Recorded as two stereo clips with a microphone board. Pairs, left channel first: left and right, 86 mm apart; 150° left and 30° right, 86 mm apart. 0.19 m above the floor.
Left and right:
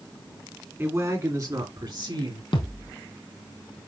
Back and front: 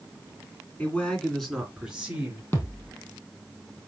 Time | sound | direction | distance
0.8 | a man speaking | 140° right | 2 m
2.5 | a thud | 90° left | 2.5 m